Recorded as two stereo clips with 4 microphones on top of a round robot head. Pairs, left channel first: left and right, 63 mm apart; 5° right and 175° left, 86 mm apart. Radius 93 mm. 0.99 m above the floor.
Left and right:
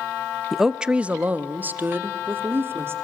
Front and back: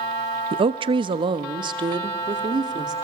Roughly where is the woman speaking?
Behind.